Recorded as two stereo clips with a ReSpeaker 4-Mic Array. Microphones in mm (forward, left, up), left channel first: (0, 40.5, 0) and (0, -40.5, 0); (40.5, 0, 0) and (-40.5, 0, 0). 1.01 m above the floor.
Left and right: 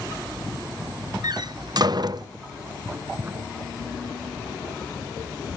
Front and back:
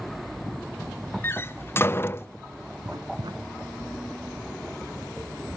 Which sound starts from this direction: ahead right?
A door slam, at 1.2 s.